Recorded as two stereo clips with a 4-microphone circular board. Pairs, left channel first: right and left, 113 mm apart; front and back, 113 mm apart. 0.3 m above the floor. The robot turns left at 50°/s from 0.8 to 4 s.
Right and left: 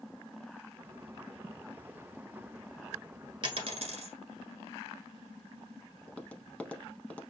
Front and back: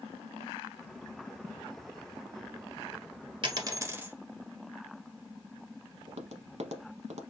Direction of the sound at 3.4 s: 135° left.